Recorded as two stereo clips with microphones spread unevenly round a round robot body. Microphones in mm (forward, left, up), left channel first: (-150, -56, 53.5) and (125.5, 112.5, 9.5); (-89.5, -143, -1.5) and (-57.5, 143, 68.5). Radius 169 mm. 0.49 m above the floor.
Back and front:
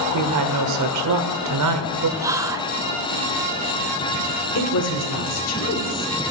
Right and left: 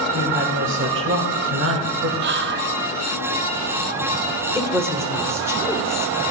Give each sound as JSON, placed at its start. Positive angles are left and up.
{"t": 0.1, "sound": "a woman speaking", "azimuth_deg": 25, "distance_m": 1.6}
{"t": 2.2, "sound": "whispering", "azimuth_deg": 70, "distance_m": 0.7}
{"t": 4.5, "sound": "a woman speaking", "azimuth_deg": 175, "distance_m": 2.0}